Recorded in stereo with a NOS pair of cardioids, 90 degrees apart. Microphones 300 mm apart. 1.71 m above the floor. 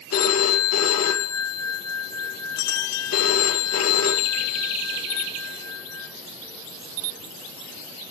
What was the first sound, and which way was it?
A phone ringing, 55° left.